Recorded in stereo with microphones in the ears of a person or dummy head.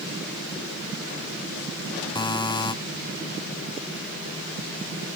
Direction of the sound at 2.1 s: 20° left (ahead or behind).